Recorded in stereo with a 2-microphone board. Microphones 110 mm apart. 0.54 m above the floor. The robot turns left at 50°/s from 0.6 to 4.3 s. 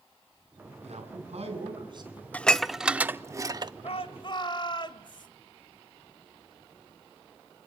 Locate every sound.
0.8 s a man speaking: 80° right, 5.5 m; by 2.2 s 150° right, 5.5 m
2.3 s dishes clattering: 15° left (ahead or behind), 0.6 m; by 3.7 s 40° right (ahead or behind), 0.6 m
3.8 s a shout: 65° left (ahead or behind), 2 m; by 5.3 s 45° left (ahead or behind), 2 m